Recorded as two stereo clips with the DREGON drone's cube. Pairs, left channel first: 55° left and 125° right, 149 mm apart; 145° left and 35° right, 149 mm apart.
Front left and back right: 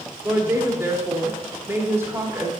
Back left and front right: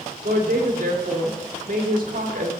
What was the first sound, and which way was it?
A woman speaking, 50° right.